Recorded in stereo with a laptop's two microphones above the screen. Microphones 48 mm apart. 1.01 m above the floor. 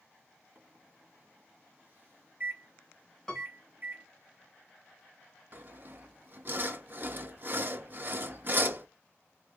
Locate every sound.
0.6 s a microwave: 40° right (ahead or behind), 1.8 m
3.3 s a piano: 10° left (ahead or behind), 1.5 m
5.5 s sawing: 45° right (ahead or behind), 0.7 m